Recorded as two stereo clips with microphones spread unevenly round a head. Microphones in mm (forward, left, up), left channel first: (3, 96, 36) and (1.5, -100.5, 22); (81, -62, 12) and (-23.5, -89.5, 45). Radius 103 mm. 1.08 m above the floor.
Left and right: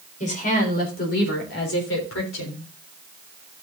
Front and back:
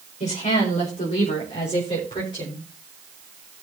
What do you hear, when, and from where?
0.2 s a woman speaking: 35° left, 4.5 m; by 2.6 s 75° left, 4 m